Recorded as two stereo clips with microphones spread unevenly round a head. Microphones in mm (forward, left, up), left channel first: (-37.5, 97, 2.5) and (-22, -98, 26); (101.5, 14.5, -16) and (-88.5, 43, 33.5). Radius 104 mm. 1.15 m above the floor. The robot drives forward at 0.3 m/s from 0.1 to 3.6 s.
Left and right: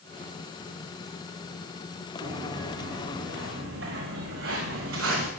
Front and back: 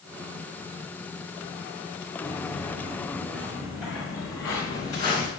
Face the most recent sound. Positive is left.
turn(degrees=-80)